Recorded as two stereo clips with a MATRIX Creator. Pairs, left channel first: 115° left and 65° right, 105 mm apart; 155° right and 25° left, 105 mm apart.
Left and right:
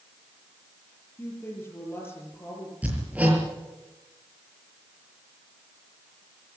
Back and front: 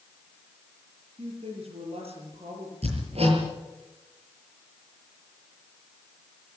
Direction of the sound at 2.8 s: 10° left.